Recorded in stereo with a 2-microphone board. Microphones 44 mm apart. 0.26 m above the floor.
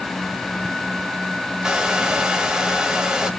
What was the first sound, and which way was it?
A hair dryer, 15° right (ahead or behind).